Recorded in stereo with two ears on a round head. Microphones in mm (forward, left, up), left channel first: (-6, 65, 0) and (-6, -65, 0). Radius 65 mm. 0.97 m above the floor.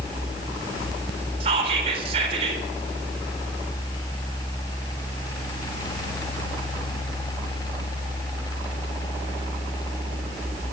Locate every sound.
1.4 s whispering: 40° right (ahead or behind), 4 m